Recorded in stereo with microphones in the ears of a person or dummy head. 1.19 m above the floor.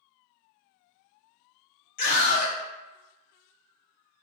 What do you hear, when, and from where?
2.0 s a scream: 45° left (ahead or behind), 1.3 m